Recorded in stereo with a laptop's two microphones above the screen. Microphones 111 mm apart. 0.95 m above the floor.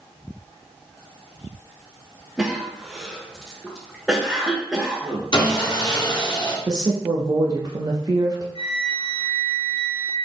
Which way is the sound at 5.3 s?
45° left (ahead or behind).